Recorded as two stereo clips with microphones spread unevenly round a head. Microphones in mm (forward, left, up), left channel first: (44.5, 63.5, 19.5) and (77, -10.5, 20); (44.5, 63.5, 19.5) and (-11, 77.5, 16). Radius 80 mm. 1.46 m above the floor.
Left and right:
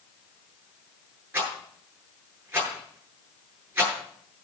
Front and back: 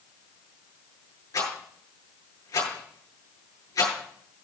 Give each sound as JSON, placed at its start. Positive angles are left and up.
{"t": 1.3, "sound": "a rattle", "azimuth_deg": 0, "distance_m": 9.5}